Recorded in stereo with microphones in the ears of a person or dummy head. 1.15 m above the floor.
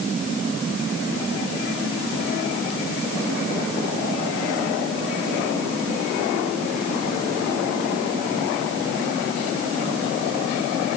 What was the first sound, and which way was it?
Only background noise.